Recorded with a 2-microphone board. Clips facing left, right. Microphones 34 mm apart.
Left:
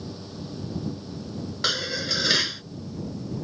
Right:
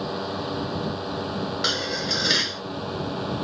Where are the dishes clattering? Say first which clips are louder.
Left 2 dB; centre (ahead or behind).